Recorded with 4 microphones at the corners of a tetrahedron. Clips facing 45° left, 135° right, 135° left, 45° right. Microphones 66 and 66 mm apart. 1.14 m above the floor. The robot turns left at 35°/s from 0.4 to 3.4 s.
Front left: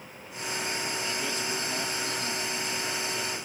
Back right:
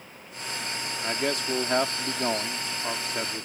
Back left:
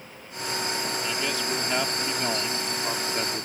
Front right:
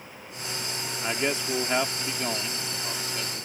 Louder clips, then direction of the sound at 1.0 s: Back right 4 dB, front right 1 dB; 95° right.